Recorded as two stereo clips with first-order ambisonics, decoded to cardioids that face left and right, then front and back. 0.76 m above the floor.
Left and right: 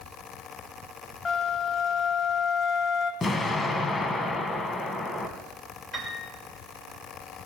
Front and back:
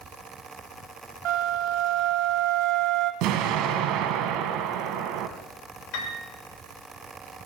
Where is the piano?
5° right, 2.5 m.